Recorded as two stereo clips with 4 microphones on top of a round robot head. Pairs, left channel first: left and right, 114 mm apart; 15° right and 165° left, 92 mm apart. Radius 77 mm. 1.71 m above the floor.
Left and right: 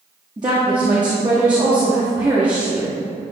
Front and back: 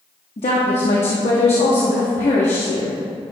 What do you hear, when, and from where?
0.4 s a woman speaking: 30° right, 1.1 m